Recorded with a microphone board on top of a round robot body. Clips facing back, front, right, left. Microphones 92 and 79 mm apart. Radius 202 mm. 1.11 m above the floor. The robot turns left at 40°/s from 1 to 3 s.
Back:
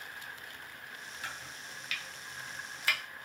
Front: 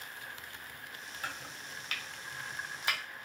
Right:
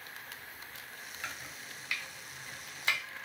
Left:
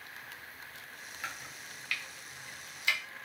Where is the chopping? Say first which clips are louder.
Front 3 dB, left 1 dB; 5° left, 0.8 m; by 3.0 s 65° right, 0.8 m.